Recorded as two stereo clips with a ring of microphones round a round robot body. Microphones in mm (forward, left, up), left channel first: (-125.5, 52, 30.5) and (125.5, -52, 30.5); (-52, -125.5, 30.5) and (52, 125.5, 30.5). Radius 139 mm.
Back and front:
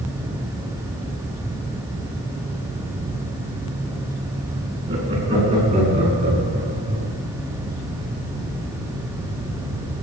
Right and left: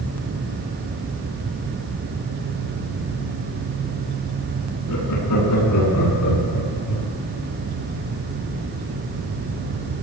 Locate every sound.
4.9 s laughter: 95° right, 9 m; by 7.1 s 85° right, 7.5 m